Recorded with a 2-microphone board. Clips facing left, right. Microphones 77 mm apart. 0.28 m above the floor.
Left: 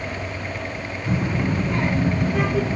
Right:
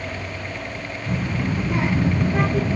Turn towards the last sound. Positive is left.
turn(degrees=-35)  # may be behind; listen again after turning